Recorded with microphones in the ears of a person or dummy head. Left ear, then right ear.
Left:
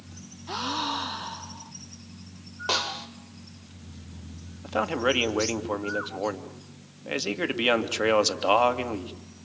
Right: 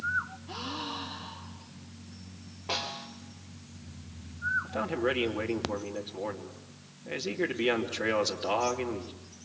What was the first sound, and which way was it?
A gasp, 75° left (ahead or behind).